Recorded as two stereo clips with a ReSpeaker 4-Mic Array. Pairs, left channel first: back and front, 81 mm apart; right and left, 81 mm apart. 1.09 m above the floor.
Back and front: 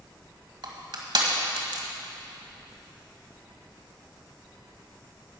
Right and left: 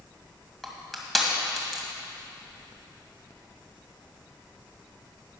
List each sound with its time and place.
0.6 s crushing: straight ahead, 1.9 m